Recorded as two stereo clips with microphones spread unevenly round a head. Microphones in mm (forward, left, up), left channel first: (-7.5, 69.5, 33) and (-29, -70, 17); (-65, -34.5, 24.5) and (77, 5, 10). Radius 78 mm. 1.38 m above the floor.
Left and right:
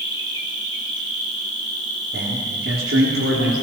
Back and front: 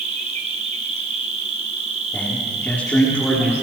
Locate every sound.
0.0 s an insect: 35° right, 3.5 m
2.1 s a man speaking: 85° right, 3.5 m